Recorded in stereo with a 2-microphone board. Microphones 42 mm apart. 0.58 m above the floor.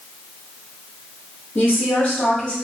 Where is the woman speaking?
60° left (ahead or behind), 1.9 m; by 2.5 s 30° left (ahead or behind), 1.4 m.